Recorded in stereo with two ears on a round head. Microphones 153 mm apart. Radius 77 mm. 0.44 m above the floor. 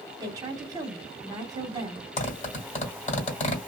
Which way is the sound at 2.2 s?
40° left (ahead or behind).